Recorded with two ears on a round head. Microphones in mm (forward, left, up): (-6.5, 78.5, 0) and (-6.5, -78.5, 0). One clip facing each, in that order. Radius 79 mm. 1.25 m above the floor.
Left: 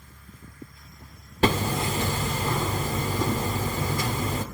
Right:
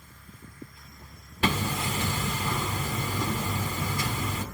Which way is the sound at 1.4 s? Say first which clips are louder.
Left 5 dB; 35° left (ahead or behind).